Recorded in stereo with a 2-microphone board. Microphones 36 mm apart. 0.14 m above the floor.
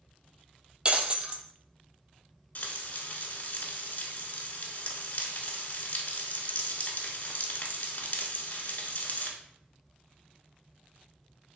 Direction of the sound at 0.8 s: 30° right (ahead or behind).